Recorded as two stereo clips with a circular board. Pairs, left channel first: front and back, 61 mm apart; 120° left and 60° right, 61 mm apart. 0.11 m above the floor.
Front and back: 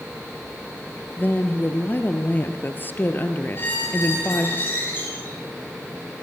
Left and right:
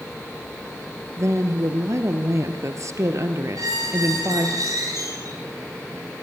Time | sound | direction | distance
1.2 | a woman speaking | 50° right | 2.5 m
3.5 | a squeak | 60° right | 10 m